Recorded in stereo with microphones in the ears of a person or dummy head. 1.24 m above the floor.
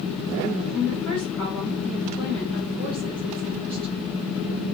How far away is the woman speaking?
About 2.5 m.